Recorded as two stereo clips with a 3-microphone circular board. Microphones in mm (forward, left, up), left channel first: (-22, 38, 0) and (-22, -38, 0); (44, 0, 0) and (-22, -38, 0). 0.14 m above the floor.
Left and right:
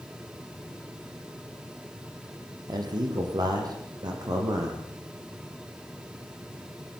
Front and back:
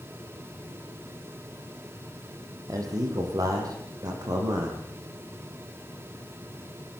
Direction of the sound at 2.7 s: 115° right.